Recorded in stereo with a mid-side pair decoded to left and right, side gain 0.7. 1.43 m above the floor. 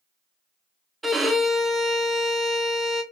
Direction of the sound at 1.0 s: 10° right.